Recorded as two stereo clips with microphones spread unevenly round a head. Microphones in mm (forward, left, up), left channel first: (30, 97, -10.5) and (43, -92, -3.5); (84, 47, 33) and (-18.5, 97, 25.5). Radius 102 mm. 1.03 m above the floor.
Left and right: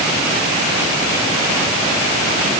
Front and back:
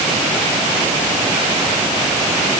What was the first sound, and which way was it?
Only background noise.